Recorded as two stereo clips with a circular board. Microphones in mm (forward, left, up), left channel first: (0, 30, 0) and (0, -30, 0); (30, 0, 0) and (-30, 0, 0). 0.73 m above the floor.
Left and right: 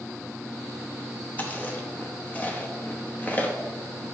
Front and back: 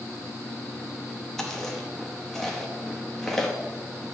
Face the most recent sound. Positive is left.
turn(degrees=80)